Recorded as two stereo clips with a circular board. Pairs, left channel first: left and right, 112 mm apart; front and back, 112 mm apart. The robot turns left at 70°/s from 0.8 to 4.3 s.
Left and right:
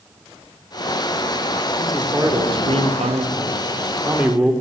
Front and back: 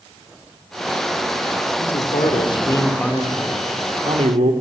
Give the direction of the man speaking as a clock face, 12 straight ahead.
12 o'clock.